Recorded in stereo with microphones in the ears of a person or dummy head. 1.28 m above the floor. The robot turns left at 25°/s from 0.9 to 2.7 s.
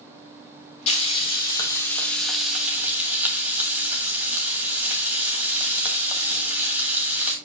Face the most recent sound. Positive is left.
turn(degrees=-10)